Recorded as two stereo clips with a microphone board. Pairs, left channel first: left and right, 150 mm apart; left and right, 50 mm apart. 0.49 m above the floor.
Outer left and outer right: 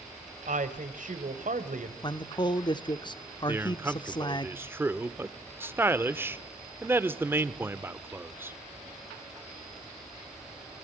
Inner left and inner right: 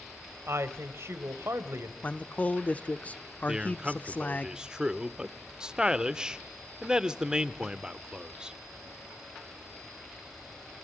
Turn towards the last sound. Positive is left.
turn(degrees=-15)  # may be behind; listen again after turning